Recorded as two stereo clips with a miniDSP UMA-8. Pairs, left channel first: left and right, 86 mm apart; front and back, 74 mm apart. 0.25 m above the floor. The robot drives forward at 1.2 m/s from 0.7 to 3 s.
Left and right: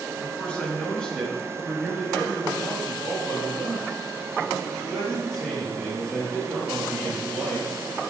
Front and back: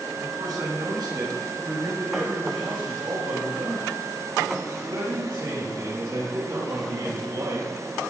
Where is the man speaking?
170° left, 3 m; by 7.7 s 175° left, 5.5 m.